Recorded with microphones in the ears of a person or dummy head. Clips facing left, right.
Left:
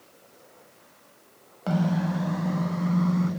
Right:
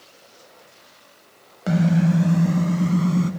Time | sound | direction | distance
1.7 | a car horn | 25° right (ahead or behind) | 2.5 m